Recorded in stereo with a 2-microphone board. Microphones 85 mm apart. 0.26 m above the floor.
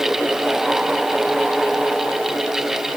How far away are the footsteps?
I don't hear footsteps.